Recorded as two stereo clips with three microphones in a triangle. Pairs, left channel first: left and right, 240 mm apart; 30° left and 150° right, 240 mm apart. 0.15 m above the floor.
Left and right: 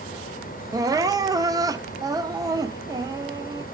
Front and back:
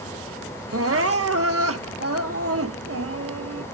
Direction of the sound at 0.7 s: 165° right.